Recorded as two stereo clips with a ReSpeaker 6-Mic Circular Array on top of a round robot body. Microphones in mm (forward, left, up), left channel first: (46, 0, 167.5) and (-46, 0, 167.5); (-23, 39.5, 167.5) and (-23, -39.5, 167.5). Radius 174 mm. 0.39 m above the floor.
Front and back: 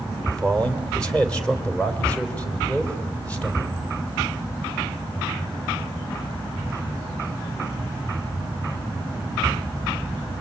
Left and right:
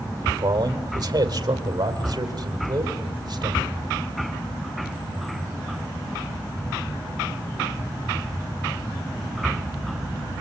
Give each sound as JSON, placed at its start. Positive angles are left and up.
{"t": 0.2, "sound": "a man speaking", "azimuth_deg": -80, "distance_m": 2.5}